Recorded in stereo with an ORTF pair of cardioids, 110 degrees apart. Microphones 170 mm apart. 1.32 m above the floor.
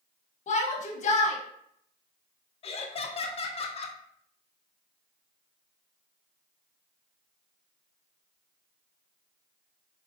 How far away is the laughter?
About 0.8 m.